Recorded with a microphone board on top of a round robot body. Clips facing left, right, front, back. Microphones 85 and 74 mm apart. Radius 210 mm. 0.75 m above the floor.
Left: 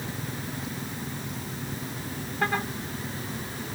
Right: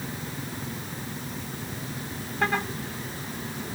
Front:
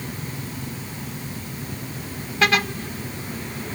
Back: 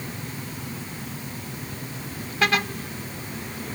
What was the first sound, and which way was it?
Only background noise.